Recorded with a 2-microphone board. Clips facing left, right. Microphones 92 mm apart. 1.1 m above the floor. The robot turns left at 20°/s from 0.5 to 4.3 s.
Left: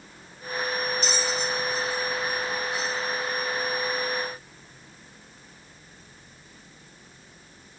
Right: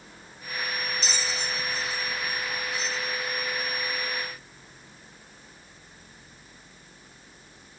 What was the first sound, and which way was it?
A bell, 50° left (ahead or behind).